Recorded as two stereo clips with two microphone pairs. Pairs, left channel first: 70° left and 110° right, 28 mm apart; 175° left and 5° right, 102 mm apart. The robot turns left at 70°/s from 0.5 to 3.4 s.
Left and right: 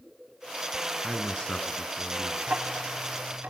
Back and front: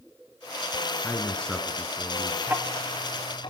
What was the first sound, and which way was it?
A man speaking, 125° left.